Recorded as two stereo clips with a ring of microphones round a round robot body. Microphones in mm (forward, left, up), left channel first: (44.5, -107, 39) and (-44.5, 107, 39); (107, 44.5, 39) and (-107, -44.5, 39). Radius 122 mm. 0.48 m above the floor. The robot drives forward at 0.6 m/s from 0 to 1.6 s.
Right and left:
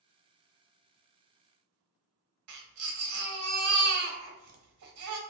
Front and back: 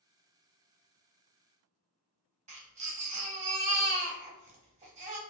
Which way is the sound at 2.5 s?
140° left.